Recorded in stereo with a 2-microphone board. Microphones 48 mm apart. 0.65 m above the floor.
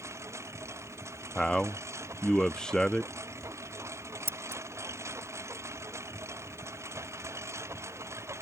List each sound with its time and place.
0.0 s a lawn mower: 80° right; by 8.4 s 75° right (ahead or behind)
1.4 s a man speaking: 15° left (ahead or behind)
4.3 s scissors: 55° right (ahead or behind)